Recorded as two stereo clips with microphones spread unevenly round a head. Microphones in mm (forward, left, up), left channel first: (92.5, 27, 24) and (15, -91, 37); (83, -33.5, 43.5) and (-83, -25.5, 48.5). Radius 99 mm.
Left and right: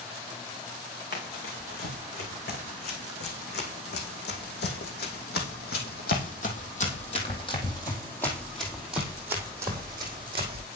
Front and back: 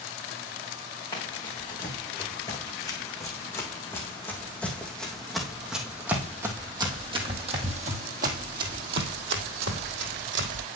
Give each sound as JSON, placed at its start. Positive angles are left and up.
{"t": 1.1, "sound": "running footsteps", "azimuth_deg": 65, "distance_m": 4.5}